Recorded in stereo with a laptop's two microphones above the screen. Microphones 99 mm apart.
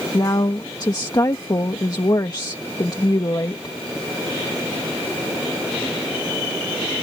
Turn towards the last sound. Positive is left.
turn(degrees=40)  # may be behind; listen again after turning